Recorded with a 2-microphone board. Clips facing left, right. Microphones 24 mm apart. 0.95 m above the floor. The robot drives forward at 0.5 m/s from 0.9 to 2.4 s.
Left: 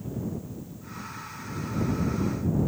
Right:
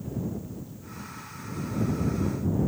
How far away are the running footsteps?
No running footsteps in this recording.